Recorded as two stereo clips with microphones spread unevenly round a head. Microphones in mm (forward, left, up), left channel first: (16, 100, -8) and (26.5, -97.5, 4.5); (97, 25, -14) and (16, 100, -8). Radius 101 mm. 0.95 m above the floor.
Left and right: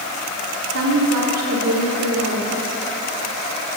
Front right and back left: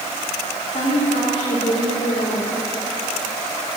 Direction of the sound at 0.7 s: 95° right.